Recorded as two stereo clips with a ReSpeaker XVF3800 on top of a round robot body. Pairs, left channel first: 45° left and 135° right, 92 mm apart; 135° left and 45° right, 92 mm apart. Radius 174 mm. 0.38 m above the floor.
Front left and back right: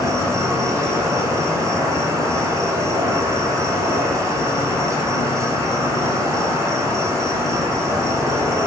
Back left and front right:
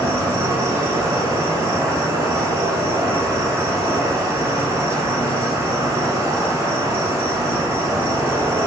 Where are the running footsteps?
No running footsteps in this recording.